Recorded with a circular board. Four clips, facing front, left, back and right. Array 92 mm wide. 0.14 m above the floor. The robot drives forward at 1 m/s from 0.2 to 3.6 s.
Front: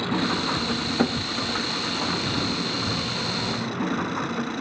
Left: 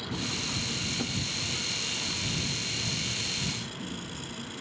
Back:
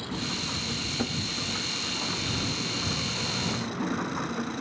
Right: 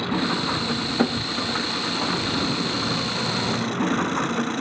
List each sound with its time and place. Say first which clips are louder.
0.0 s an engine running: right 12 dB, front 9 dB; 50° right; by 4.6 s 75° right